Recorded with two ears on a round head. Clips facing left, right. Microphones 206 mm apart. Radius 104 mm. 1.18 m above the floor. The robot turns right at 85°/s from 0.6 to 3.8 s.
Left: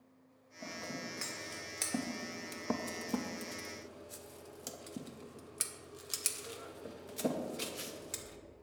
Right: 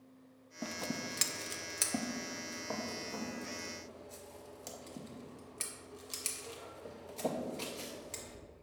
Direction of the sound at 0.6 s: 50° right (ahead or behind).